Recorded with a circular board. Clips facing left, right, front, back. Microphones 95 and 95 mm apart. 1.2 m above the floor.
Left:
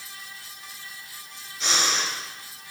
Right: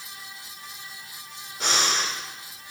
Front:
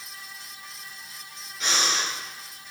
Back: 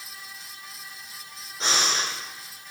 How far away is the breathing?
About 2.5 m.